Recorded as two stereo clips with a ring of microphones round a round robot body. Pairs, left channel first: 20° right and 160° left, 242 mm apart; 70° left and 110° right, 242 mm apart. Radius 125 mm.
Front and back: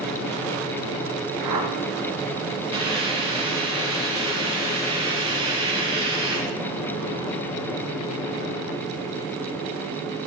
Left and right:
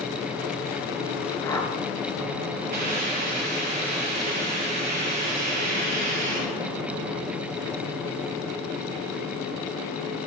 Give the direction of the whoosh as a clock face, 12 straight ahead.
7 o'clock.